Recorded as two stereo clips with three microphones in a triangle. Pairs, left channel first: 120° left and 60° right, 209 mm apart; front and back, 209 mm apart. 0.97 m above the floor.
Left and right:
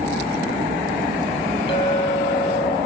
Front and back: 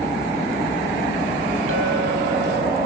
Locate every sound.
1.7 s a clink: 175° right, 4 m